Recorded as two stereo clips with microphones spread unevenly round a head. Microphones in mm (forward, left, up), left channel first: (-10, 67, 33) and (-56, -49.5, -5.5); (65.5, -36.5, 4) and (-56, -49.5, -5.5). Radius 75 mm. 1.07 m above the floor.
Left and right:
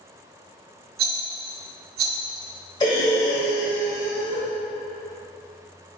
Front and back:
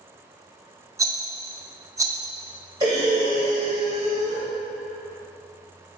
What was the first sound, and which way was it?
A rattle, 110° right.